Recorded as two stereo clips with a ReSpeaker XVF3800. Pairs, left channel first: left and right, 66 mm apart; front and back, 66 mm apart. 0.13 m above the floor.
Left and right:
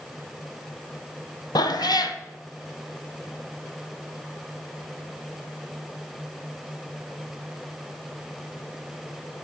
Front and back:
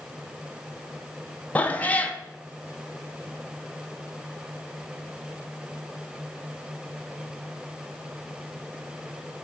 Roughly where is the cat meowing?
Ahead left.